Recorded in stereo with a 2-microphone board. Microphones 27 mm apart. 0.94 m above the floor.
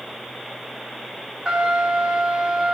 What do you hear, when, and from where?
1.4 s a trumpet: 20° right (ahead or behind), 4 m